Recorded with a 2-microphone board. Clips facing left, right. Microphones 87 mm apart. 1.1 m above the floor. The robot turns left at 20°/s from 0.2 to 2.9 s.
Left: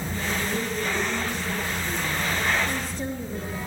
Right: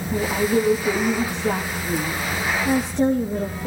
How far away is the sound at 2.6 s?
About 1.3 m.